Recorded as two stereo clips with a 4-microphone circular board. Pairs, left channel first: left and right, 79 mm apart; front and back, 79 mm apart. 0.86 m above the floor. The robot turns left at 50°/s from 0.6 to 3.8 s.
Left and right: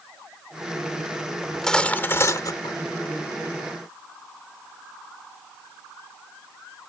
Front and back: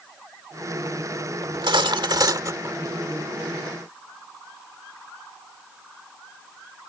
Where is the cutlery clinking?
175° right; by 2.8 s 120° left.